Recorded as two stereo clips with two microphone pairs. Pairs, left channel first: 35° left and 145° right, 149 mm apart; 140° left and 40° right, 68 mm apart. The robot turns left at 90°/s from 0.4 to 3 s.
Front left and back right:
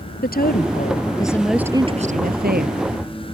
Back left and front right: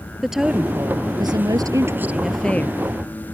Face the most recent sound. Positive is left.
turn(degrees=170)